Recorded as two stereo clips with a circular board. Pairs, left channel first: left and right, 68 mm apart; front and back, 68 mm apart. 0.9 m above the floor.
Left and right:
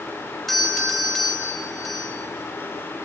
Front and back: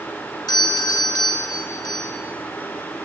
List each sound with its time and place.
0.5 s a doorbell: straight ahead, 4 m